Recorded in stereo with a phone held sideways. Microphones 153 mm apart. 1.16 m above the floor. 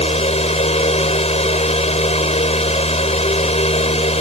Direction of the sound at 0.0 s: 45° left (ahead or behind).